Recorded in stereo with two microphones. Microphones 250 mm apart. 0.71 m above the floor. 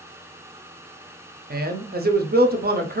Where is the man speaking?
40° right (ahead or behind), 0.5 m.